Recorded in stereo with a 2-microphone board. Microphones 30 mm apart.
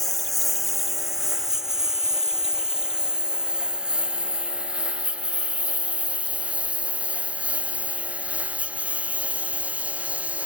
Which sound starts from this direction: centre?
A lawn mower, at 0.0 s.